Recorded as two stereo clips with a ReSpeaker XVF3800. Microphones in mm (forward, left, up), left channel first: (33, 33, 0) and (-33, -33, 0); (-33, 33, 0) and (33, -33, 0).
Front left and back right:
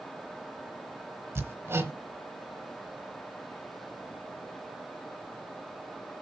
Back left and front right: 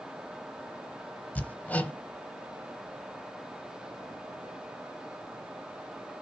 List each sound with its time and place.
1.4 s hammering: 170° right, 0.9 m